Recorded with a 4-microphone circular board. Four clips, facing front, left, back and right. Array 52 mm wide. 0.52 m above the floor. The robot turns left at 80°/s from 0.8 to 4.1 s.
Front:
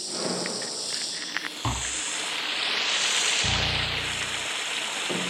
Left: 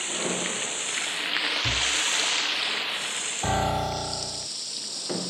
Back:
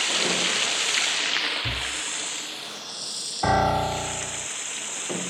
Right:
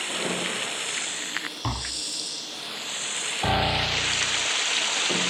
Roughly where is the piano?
Behind.